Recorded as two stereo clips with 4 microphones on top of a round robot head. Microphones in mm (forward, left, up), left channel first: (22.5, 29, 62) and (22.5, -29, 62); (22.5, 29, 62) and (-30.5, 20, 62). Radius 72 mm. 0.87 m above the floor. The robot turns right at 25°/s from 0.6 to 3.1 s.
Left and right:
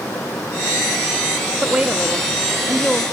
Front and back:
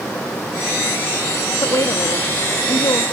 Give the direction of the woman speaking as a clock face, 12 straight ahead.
1 o'clock.